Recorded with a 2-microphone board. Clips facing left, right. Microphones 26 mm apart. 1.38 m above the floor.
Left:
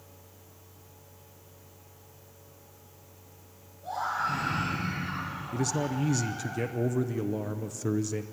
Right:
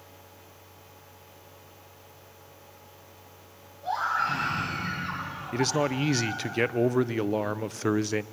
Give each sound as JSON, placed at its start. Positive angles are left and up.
{"t": 3.8, "sound": "a scream", "side_deg": -35, "distance_m": 10.0}
{"t": 5.5, "sound": "a man speaking", "side_deg": -45, "distance_m": 0.5}